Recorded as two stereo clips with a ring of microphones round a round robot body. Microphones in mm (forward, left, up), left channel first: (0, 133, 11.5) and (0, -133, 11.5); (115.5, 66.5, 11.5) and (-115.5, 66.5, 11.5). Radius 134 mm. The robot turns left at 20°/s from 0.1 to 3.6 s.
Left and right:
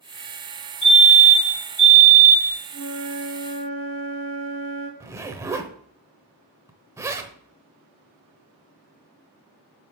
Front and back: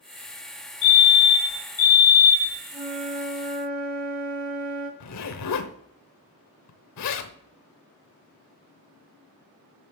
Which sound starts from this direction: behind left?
A flute, at 2.7 s.